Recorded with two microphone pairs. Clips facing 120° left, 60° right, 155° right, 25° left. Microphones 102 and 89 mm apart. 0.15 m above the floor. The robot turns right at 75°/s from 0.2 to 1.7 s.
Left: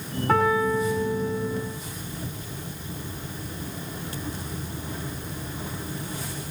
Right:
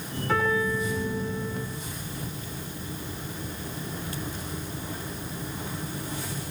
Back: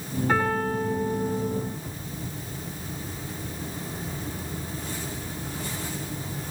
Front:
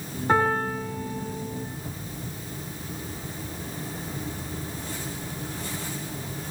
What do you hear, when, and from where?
0.3 s a piano: 85° left, 9 m; by 1.7 s 170° right, 9 m